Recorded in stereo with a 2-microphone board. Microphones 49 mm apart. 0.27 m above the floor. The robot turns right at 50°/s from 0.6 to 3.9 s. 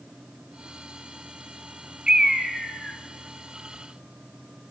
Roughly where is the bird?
Ahead right.